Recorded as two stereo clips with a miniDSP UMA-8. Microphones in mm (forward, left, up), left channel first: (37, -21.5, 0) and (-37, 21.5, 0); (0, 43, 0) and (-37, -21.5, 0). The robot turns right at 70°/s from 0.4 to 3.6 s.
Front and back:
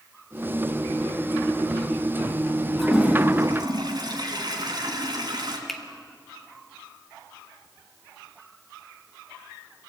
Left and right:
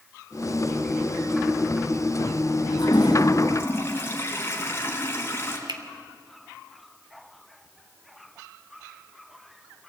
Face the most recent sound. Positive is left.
turn(degrees=-115)